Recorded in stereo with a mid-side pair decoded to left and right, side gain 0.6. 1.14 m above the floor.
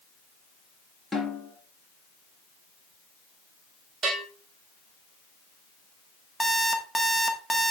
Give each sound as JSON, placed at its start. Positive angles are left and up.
{"t": 1.1, "sound": "a snare drum", "azimuth_deg": 5, "distance_m": 3.0}
{"t": 4.0, "sound": "a bell", "azimuth_deg": -40, "distance_m": 2.5}
{"t": 6.4, "sound": "an alarm clock", "azimuth_deg": 5, "distance_m": 1.3}